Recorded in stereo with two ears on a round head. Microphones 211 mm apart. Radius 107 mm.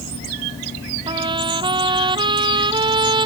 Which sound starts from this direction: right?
A trumpet, at 1.1 s.